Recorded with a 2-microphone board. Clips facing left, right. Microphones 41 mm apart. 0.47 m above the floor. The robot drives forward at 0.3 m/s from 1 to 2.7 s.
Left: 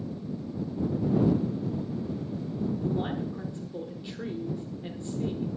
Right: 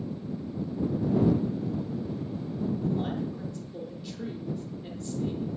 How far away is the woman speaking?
About 0.7 m.